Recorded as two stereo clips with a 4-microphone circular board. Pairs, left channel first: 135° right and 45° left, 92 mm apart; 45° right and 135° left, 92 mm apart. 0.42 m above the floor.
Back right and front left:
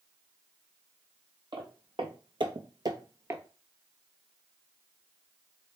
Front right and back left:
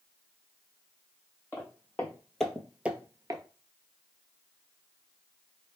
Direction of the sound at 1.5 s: 20° left.